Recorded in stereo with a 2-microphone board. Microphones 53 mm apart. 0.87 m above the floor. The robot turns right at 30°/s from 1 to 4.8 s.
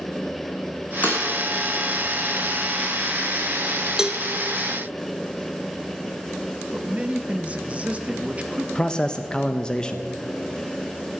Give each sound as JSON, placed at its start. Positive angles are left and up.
{"t": 1.0, "sound": "breaking glass", "side_deg": 30, "distance_m": 3.5}
{"t": 4.0, "sound": "a cowbell", "side_deg": -10, "distance_m": 0.6}
{"t": 6.7, "sound": "a man speaking", "side_deg": -25, "distance_m": 1.0}
{"t": 8.8, "sound": "a man speaking", "side_deg": 15, "distance_m": 0.5}